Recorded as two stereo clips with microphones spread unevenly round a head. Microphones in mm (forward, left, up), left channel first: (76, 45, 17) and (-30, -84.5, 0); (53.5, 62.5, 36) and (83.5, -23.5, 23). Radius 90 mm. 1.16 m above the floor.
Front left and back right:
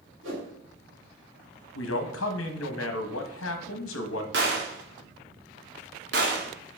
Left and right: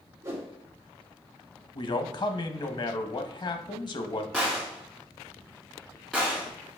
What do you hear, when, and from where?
0.2 s a whoosh: 140° right, 3.5 m
1.8 s a man speaking: 75° left, 1.1 m
4.3 s a gunshot: 165° right, 1.4 m